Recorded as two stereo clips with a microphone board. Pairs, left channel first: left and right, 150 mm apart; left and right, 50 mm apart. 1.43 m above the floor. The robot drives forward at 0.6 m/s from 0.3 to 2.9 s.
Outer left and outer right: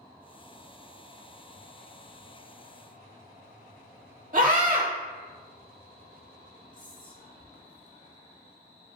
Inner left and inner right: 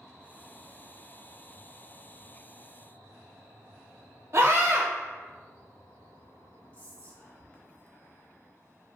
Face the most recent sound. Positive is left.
turn(degrees=30)  # may be behind; listen again after turning